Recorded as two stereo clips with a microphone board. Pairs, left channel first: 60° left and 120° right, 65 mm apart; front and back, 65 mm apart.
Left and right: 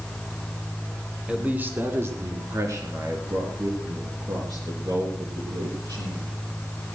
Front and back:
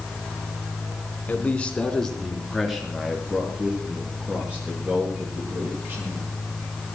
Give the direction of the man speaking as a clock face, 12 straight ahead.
2 o'clock.